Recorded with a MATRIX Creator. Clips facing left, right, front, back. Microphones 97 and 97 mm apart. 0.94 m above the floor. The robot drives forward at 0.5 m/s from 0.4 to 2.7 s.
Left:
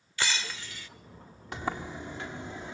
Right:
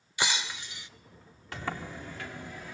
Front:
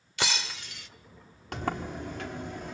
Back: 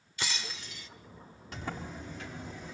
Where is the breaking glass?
20° right, 1.7 m.